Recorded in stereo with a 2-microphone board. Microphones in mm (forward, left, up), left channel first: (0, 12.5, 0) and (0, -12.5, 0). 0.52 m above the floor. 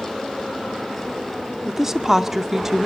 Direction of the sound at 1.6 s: 15° right (ahead or behind).